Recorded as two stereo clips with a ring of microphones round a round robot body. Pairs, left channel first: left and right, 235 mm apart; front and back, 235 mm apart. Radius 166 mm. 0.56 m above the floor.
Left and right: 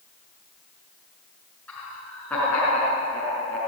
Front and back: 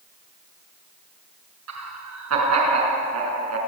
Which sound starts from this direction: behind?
Laughter, at 1.7 s.